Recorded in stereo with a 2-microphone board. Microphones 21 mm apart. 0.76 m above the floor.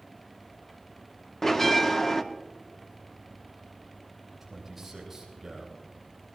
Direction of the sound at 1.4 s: 15° left (ahead or behind).